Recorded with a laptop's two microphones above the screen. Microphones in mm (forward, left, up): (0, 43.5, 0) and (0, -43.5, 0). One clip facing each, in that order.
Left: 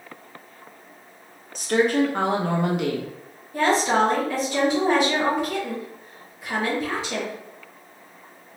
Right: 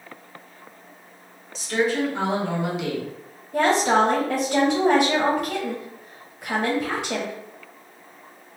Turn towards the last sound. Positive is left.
turn(degrees=-80)